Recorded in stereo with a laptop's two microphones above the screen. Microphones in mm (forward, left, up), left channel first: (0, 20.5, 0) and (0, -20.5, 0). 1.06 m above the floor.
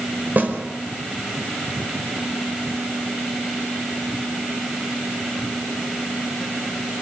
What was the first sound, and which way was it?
A snare drum, 50° right (ahead or behind).